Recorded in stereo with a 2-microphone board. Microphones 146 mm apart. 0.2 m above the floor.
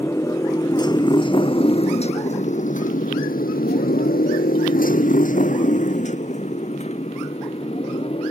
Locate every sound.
0.0 s a motorcycle: 20° left (ahead or behind); by 8.3 s 40° left (ahead or behind)